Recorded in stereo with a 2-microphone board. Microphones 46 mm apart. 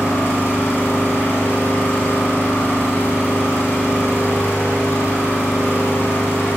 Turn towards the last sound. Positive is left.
turn(degrees=75)  # may be behind; listen again after turning